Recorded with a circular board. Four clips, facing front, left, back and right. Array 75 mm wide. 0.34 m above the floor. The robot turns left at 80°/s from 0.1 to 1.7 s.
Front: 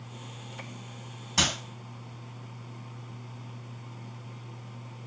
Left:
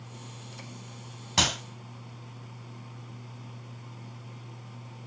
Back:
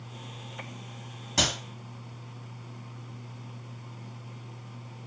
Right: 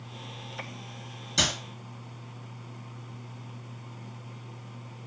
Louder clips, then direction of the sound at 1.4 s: Left 2 dB, even; 95° left.